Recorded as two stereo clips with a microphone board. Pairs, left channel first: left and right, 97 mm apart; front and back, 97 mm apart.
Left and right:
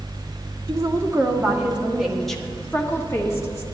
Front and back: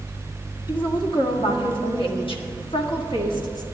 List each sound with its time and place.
0.7 s a woman speaking: 30° right, 1.8 m; by 3.6 s 40° left, 1.6 m